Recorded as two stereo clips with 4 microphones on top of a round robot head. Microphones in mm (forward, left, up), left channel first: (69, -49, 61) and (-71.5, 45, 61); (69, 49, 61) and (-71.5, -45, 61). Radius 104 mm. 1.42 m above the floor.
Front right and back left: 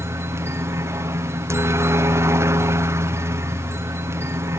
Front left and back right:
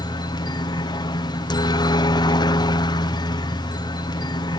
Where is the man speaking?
No man speaking in this recording.